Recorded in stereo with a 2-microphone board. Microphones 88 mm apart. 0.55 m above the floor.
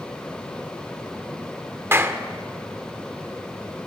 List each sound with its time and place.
1.9 s a clap: 30° right (ahead or behind), 1.3 m